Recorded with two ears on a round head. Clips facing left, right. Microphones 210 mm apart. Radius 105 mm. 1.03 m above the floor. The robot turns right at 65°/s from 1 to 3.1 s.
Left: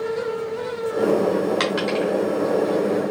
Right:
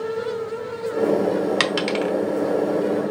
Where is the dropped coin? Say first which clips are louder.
Left 1 dB; 40° right (ahead or behind), 0.8 m; by 2.1 s 45° right (ahead or behind), 0.8 m.